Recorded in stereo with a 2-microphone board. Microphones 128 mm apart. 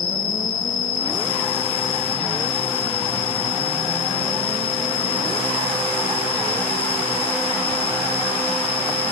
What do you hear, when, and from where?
0.0 s an insect: 50° left (ahead or behind)